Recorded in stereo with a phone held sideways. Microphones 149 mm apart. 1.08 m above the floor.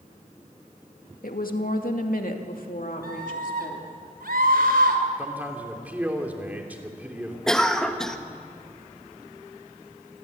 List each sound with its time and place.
1.2 s a woman speaking: 70° left (ahead or behind), 2.0 m; by 3.9 s 65° left (ahead or behind), 3 m
3.0 s a scream: 85° right, 4.5 m
5.2 s a man speaking: 10° right (ahead or behind), 3 m
7.5 s a cough: 5° left (ahead or behind), 1.7 m